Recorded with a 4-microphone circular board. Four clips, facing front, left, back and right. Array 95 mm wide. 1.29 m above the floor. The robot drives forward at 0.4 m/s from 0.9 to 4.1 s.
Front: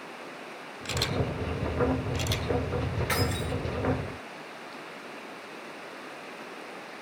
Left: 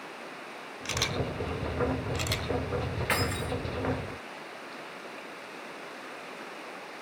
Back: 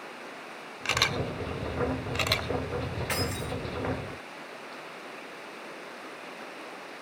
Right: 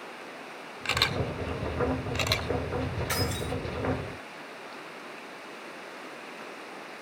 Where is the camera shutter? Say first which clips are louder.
Right 2 dB, back 1 dB; 155° right, 1.4 m; by 2.5 s 165° right, 2.0 m.